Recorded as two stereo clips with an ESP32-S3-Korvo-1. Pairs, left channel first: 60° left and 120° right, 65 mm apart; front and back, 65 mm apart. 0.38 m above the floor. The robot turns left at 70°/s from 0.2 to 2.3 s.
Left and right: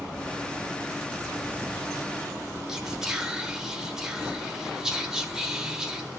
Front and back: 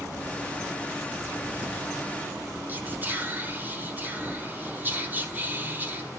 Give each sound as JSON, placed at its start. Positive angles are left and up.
{"t": 2.7, "sound": "whispering", "azimuth_deg": 170, "distance_m": 1.4}